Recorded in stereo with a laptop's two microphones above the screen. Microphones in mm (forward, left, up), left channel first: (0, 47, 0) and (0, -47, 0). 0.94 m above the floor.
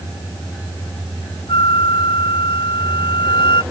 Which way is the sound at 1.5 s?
60° left (ahead or behind).